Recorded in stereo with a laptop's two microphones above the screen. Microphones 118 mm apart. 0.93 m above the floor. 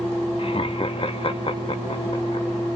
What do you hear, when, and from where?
0.4 s laughter: 50° left (ahead or behind), 1.0 m